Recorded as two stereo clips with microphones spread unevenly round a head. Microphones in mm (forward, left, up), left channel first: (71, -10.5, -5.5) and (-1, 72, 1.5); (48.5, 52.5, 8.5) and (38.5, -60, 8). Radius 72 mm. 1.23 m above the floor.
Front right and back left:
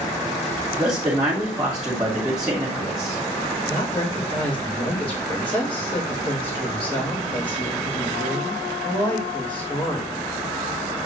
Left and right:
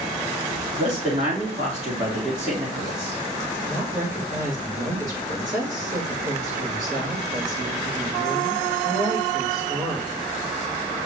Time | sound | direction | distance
0.8 | a man speaking | 145° right | 3 m
3.6 | a woman speaking | 110° right | 4.5 m